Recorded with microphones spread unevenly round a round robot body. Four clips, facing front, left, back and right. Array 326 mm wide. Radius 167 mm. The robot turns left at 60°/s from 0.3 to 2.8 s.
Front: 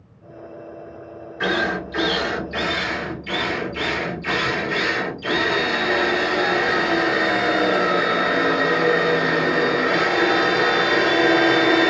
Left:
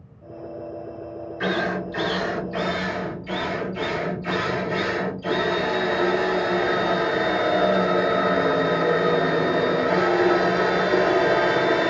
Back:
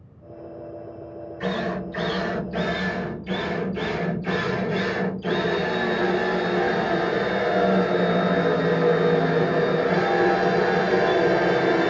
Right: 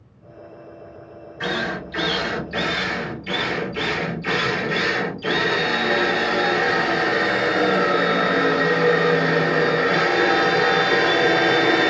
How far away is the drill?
About 2.5 m.